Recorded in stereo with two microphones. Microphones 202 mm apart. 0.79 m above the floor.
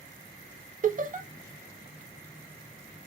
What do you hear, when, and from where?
0.8 s laughter: 40° right (ahead or behind), 0.7 m